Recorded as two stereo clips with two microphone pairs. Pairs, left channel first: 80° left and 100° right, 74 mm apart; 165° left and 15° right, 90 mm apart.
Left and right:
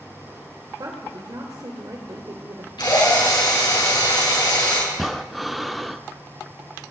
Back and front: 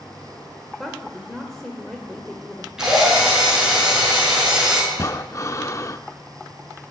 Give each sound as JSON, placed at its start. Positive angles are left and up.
{"t": 0.8, "sound": "a woman speaking", "azimuth_deg": -110, "distance_m": 1.7}
{"t": 2.8, "sound": "a drill", "azimuth_deg": 70, "distance_m": 6.0}
{"t": 4.9, "sound": "breathing", "azimuth_deg": 170, "distance_m": 0.6}